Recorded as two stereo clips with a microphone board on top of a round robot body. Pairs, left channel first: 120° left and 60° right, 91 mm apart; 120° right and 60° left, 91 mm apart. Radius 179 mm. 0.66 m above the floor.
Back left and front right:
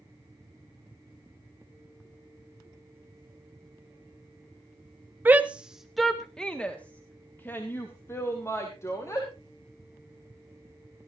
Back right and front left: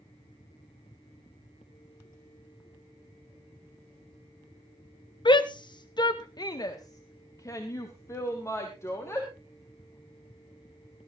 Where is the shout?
125° right, 1.2 m; by 9.3 s straight behind, 3 m.